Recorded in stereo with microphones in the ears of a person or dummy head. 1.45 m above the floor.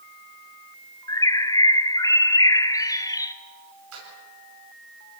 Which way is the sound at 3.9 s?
90° right.